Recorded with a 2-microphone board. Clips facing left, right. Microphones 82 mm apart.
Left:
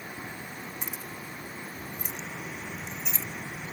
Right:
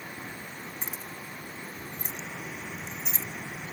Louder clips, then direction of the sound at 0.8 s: Left 1 dB; 30° right (ahead or behind).